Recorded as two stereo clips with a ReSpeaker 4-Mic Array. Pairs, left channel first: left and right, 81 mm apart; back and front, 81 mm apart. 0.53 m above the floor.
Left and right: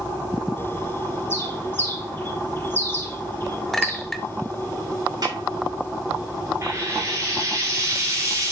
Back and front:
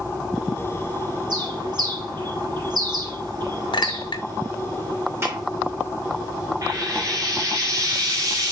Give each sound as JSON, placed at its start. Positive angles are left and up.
{"t": 1.3, "sound": "a bird", "azimuth_deg": 30, "distance_m": 1.8}
{"t": 3.7, "sound": "a clink", "azimuth_deg": 175, "distance_m": 1.0}
{"t": 5.2, "sound": "a snare drum", "azimuth_deg": -55, "distance_m": 5.5}
{"t": 6.6, "sound": "frying", "azimuth_deg": -40, "distance_m": 4.0}